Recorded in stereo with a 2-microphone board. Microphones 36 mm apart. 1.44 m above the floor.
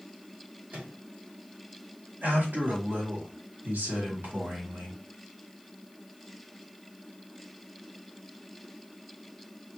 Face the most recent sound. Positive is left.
turn(degrees=-70)  # may be behind; listen again after turning